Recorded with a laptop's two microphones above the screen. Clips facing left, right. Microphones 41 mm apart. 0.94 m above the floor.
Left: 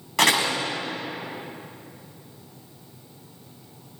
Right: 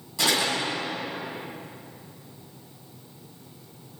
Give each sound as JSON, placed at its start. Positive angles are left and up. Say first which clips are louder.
{"t": 0.2, "sound": "a door slam", "louder": "left 4 dB", "side_deg": 65, "distance_m": 4.5}